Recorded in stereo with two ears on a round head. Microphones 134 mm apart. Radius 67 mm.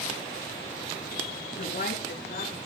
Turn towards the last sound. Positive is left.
turn(degrees=55)  # may be behind; listen again after turning